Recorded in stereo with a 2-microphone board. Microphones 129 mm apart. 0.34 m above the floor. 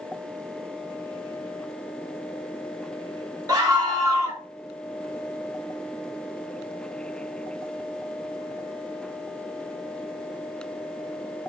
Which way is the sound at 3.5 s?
35° right (ahead or behind).